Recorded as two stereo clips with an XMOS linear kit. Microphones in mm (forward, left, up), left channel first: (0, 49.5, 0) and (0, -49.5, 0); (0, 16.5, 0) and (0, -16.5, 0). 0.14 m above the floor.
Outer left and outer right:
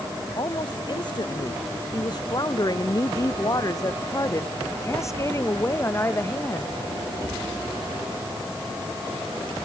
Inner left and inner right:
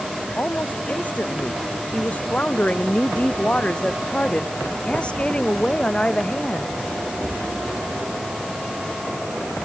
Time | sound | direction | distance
0.3 | a woman speaking | 50° left (ahead or behind) | ?